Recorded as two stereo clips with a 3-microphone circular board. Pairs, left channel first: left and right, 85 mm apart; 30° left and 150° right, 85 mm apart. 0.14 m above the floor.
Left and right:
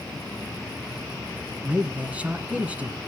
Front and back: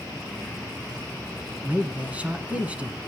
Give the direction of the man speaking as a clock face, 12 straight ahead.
4 o'clock.